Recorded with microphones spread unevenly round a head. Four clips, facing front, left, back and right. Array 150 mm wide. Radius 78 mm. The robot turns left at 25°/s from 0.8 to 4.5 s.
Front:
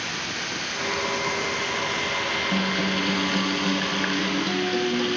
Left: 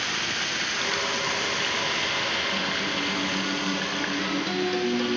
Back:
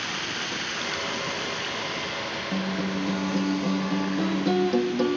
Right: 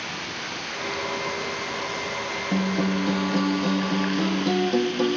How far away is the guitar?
About 1.8 m.